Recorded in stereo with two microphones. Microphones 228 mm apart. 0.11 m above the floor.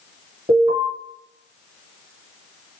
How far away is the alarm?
About 1.8 m.